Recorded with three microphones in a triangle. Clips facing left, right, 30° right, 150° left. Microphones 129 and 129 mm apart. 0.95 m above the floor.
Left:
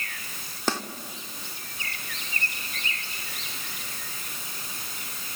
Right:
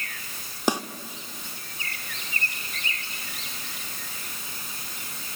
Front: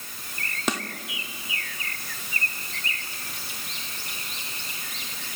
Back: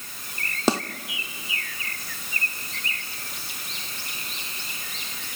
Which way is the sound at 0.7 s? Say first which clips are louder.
Right 4 dB, back 6 dB; 160° right.